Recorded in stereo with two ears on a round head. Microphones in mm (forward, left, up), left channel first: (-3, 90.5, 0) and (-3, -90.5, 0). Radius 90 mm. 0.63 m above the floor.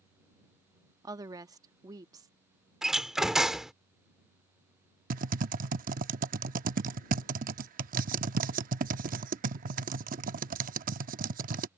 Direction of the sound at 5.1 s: 40° right (ahead or behind).